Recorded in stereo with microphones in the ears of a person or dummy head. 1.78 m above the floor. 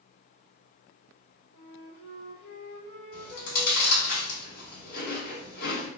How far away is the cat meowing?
No cat meowing in this recording.